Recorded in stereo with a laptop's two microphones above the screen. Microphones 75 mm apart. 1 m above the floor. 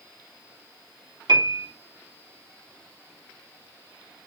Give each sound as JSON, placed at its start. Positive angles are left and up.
{"t": 1.3, "sound": "a piano", "side_deg": -65, "distance_m": 2.0}